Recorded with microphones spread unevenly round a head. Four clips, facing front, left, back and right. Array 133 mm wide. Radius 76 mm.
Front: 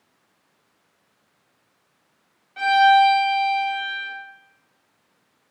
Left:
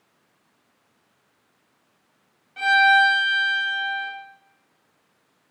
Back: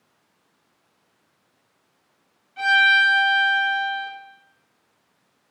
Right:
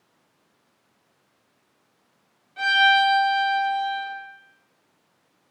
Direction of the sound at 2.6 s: 20° right.